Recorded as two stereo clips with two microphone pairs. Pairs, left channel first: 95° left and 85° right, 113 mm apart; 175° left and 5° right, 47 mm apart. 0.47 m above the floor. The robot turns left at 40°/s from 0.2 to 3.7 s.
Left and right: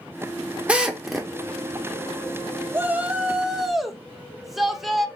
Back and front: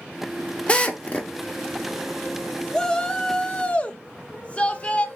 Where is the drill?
155° right, 0.7 m; by 1.3 s straight behind, 0.7 m.